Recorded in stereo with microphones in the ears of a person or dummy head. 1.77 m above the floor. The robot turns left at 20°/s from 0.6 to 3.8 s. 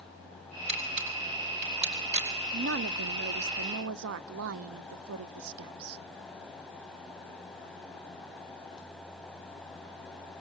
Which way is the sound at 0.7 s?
35° right (ahead or behind).